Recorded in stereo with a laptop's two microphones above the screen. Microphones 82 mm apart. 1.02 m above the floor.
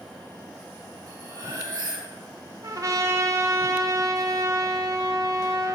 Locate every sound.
1.1 s cutlery clinking: 45° right (ahead or behind), 2.5 m
2.6 s a trumpet: 45° right (ahead or behind), 0.6 m